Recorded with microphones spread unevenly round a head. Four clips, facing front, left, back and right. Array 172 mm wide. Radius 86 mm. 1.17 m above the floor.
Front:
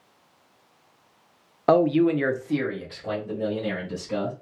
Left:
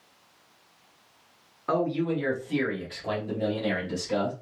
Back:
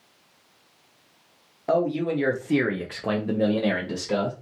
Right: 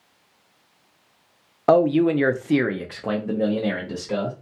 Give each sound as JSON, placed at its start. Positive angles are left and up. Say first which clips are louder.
{"t": 1.7, "sound": "a man speaking", "louder": "right 10 dB, front 5 dB", "azimuth_deg": -50, "distance_m": 0.5}